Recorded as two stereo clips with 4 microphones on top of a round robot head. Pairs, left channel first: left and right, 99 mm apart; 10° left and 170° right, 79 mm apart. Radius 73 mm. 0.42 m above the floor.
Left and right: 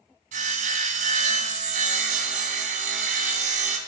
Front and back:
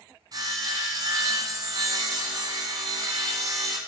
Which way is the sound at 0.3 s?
110° right.